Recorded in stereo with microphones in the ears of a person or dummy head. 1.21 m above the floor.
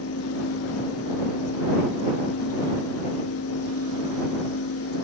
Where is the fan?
75° left (ahead or behind).